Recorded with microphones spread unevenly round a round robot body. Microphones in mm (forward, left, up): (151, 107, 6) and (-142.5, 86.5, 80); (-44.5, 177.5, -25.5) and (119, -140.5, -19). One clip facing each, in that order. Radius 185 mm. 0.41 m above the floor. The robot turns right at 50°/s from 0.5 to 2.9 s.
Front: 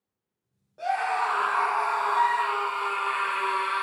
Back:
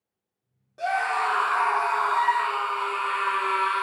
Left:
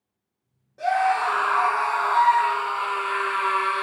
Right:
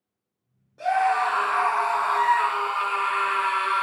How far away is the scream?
About 0.7 m.